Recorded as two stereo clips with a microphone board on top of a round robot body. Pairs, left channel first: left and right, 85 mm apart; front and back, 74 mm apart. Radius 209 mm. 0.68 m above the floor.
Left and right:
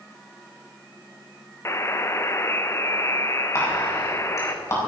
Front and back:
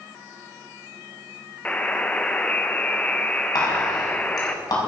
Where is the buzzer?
60° left, 1.3 m.